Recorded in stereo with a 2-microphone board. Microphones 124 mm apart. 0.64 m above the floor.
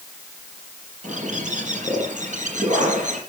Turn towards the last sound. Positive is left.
turn(degrees=-85)